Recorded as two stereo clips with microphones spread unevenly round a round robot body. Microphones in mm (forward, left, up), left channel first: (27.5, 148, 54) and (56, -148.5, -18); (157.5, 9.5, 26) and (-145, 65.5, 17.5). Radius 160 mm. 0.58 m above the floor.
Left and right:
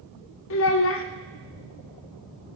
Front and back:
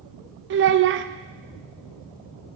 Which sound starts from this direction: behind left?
A child speaking, at 0.5 s.